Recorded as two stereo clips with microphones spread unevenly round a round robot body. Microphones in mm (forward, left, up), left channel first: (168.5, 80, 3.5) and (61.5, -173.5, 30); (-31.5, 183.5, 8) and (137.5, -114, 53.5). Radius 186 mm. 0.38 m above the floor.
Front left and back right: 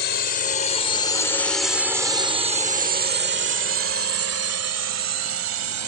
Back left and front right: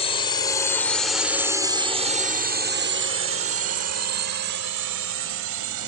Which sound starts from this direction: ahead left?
A drone, at 0.0 s.